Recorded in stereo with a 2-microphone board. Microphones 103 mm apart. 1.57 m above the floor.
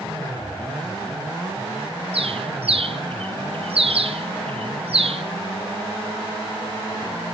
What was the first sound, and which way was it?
A bird, 70° right (ahead or behind).